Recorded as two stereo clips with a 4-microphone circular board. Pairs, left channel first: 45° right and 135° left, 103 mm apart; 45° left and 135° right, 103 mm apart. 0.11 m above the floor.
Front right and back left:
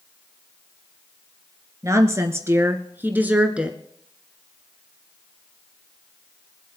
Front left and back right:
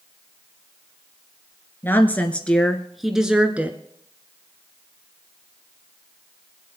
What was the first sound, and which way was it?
A woman speaking, 100° left.